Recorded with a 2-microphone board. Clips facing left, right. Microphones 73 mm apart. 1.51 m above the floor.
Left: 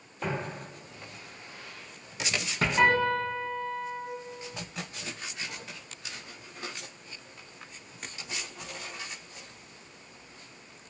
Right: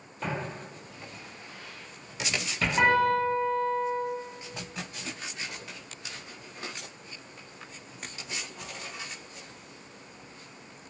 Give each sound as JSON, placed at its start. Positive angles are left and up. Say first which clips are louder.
{"t": 0.2, "sound": "footsteps", "louder": "even", "side_deg": 5, "distance_m": 1.8}
{"t": 2.8, "sound": "a piano", "louder": "right 2 dB", "side_deg": -15, "distance_m": 0.8}